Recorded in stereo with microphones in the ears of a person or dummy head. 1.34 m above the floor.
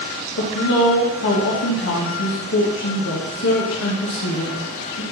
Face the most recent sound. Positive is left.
turn(degrees=65)  # may be behind; listen again after turning